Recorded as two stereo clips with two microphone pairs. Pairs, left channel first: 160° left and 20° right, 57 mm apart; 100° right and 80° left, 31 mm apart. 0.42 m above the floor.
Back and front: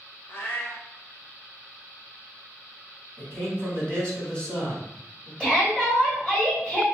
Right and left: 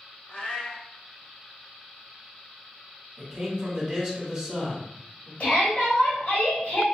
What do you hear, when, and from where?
0.3 s a cat meowing: 150° right, 0.6 m
3.2 s a man speaking: 110° left, 1.5 m
5.4 s a shout: 130° right, 2.0 m